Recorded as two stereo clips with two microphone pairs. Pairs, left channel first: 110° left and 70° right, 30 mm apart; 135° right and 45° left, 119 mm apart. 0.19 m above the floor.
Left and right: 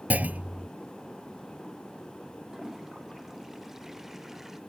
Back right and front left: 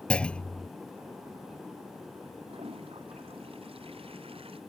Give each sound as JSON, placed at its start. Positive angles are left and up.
{"t": 0.1, "sound": "a clunk", "azimuth_deg": -55}
{"t": 2.5, "sound": "a toilet flushing", "azimuth_deg": 10}